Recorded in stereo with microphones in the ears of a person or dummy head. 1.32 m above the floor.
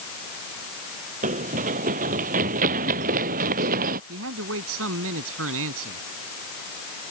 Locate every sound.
1.2 s running footsteps: 45° right (ahead or behind); by 4.0 s 50° right (ahead or behind)
4.1 s a man speaking: 80° right